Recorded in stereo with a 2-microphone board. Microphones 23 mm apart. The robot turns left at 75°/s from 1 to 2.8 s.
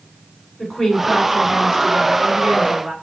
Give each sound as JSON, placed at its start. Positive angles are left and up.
{"t": 0.6, "sound": "a woman speaking", "azimuth_deg": 75, "distance_m": 1.9}